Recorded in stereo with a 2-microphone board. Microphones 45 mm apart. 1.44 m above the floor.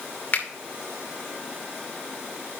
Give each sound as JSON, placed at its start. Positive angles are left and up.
{"t": 0.3, "sound": "a finger snap", "side_deg": 40, "distance_m": 2.0}